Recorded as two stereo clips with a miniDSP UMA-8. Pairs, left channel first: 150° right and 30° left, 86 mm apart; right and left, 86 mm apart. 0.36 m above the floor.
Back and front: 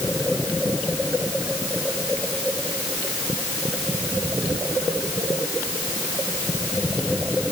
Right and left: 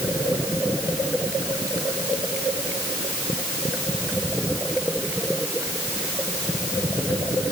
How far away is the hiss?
I don't hear a hiss.